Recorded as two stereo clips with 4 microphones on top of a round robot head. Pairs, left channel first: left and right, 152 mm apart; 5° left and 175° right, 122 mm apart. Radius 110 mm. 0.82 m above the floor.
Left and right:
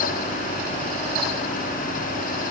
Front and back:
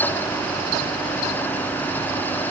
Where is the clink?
I don't hear a clink.